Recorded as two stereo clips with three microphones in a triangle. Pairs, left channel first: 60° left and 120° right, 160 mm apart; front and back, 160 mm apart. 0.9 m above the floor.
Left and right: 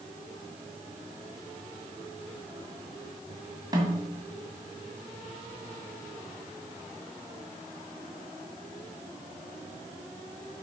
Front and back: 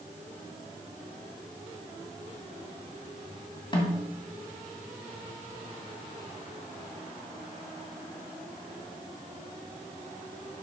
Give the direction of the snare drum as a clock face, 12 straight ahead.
2 o'clock.